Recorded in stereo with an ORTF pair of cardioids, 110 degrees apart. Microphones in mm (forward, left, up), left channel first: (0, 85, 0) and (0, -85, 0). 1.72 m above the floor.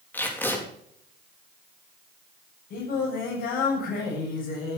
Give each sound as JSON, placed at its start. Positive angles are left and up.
{"t": 0.1, "sound": "tape being pulled", "azimuth_deg": 10, "distance_m": 4.0}
{"t": 2.7, "sound": "singing", "azimuth_deg": 55, "distance_m": 7.5}